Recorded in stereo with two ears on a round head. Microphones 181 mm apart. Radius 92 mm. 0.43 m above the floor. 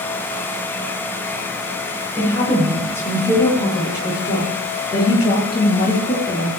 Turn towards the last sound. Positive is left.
turn(degrees=25)  # may be behind; listen again after turning